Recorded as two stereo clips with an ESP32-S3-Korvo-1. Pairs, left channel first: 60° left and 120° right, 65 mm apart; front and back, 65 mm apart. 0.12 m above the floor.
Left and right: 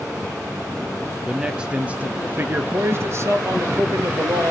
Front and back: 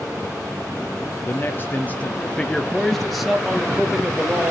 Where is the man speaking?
40° right, 1.9 m; by 4.5 s 115° right, 2.5 m.